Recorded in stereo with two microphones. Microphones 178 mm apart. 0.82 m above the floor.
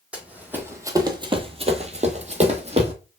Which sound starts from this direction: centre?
Running footsteps, at 0.1 s.